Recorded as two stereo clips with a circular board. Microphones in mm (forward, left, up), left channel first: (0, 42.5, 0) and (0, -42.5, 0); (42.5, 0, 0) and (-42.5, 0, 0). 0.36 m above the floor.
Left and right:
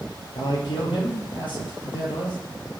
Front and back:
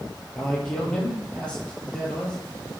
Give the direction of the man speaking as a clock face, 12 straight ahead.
9 o'clock.